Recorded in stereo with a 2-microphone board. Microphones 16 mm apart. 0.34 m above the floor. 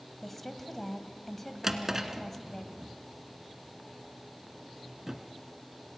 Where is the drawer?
25° right (ahead or behind), 1.8 m.